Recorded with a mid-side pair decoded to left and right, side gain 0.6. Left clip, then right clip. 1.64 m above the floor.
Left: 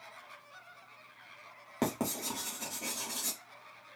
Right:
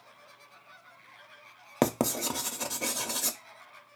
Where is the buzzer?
No buzzer in this recording.